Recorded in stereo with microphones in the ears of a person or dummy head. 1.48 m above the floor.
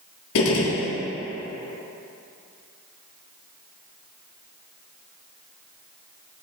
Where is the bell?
I don't hear a bell.